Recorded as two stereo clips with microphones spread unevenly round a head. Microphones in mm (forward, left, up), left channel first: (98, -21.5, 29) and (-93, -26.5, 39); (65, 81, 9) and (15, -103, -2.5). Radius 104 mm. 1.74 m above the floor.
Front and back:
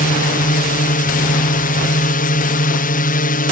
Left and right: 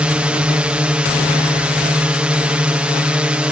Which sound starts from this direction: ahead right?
A drone, at 0.0 s.